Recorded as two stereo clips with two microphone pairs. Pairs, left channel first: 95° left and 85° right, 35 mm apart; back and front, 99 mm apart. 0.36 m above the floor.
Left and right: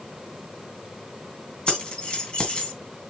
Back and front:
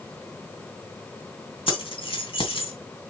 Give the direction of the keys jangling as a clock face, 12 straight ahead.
7 o'clock.